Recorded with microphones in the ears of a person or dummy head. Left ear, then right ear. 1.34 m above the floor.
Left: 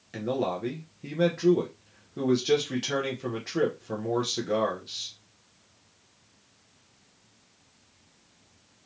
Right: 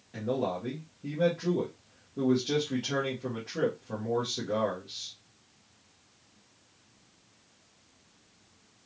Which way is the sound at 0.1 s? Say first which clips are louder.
Left 2 dB; 65° left (ahead or behind).